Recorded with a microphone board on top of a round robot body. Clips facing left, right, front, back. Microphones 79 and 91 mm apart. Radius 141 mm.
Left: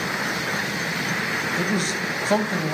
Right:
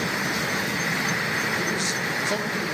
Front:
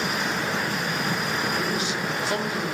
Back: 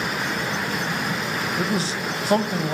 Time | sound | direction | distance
1.6 | a man speaking | 125° left | 2 m